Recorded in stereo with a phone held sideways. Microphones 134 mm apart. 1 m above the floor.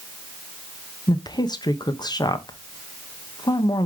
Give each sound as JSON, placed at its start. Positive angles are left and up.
{"t": 1.1, "sound": "a woman speaking", "side_deg": 30, "distance_m": 0.7}